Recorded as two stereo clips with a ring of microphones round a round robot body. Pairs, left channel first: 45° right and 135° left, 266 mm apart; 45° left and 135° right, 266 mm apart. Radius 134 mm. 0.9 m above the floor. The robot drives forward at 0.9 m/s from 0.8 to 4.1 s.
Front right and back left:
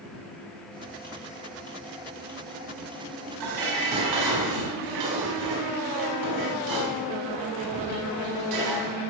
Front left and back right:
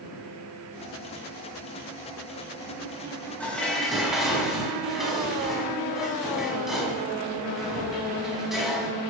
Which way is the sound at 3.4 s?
130° left.